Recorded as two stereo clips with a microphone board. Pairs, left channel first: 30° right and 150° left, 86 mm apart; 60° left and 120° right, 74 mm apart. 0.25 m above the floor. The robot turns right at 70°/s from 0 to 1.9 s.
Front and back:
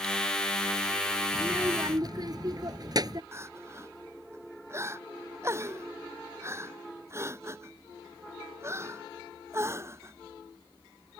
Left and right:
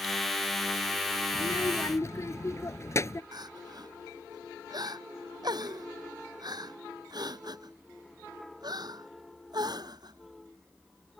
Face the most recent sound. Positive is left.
turn(degrees=-150)